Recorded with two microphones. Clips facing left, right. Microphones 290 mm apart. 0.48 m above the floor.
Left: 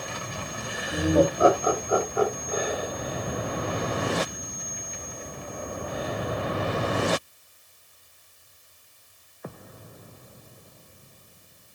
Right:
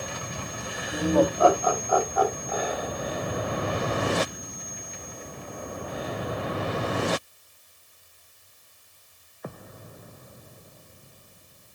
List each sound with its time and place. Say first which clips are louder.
0.9 s laughter: left 1 dB; 10° left (ahead or behind), 1.9 m; by 2.9 s 35° left (ahead or behind), 3 m